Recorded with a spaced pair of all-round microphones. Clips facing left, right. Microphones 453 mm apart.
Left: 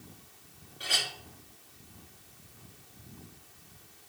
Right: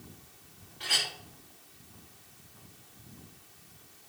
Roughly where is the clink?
Centre.